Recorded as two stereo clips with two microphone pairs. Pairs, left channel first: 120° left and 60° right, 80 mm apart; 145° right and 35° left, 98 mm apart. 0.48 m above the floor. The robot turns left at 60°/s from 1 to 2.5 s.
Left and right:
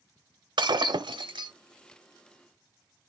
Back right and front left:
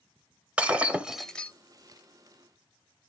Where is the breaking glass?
45° right, 0.6 m; by 1.5 s 75° right, 0.6 m.